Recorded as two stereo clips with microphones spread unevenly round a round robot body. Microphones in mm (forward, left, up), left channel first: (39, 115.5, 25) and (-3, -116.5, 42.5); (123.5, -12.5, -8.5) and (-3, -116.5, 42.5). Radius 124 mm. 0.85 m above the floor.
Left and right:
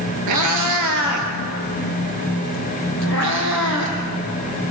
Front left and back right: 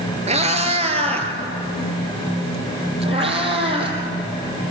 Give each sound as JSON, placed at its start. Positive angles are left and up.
{"t": 0.3, "sound": "a cat meowing", "azimuth_deg": -100, "distance_m": 2.5}